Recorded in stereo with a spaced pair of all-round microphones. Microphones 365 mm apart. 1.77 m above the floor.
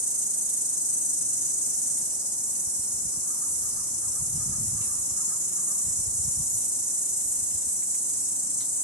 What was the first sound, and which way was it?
An insect, 65° left (ahead or behind).